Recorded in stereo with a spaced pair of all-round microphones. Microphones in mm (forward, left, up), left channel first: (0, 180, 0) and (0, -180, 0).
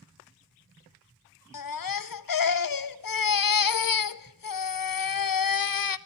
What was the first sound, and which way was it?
A baby crying, 70° left (ahead or behind).